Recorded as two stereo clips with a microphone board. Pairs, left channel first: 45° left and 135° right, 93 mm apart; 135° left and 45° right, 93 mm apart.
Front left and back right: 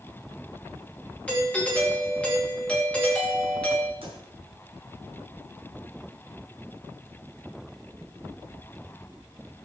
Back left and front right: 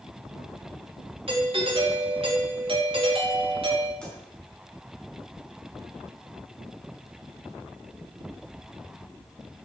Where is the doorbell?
30° right, 3 m.